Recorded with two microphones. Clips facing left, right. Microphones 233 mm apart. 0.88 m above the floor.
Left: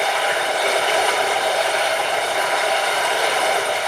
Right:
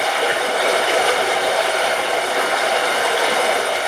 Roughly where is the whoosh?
I don't hear a whoosh.